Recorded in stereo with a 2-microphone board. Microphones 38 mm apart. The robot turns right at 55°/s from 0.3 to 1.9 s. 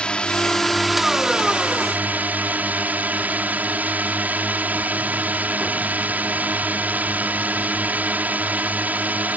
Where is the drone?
150° left; by 9.4 s 125° right.